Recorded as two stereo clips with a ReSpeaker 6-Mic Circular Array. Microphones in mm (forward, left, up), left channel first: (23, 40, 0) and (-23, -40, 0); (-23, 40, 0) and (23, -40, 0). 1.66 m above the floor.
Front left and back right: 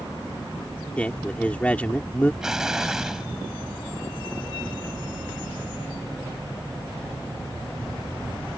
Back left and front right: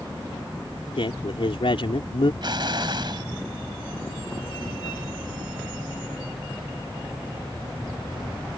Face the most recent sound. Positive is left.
turn(degrees=-35)